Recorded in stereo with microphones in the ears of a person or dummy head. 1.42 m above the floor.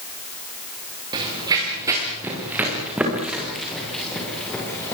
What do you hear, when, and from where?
1.1 s running footsteps: 25° right (ahead or behind), 9 m; by 4.9 s 10° left (ahead or behind), 9 m